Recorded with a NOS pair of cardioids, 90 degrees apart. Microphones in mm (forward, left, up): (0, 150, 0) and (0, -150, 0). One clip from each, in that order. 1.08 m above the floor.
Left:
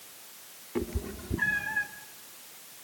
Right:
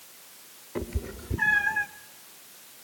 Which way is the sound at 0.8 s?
5° right.